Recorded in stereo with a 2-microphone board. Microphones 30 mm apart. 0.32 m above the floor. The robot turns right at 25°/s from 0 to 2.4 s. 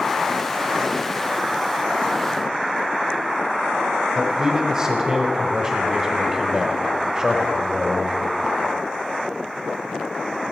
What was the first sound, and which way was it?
A man speaking, 20° right (ahead or behind).